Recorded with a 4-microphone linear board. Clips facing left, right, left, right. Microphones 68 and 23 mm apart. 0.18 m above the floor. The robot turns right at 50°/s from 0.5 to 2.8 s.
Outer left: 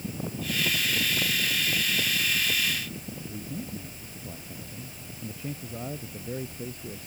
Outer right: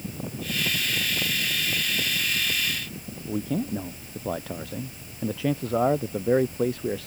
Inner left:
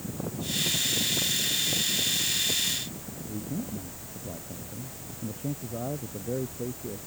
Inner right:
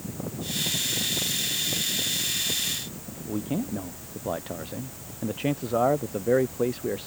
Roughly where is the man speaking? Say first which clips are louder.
Outer right 12 dB, inner right 6 dB; right.